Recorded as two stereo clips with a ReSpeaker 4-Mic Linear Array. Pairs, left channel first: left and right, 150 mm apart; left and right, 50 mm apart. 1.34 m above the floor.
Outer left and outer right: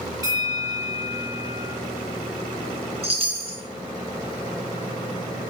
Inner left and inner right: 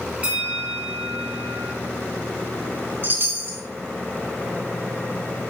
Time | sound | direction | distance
0.2 | a bell | 25° right (ahead or behind) | 2 m
3.0 | a chime | 40° right (ahead or behind) | 0.9 m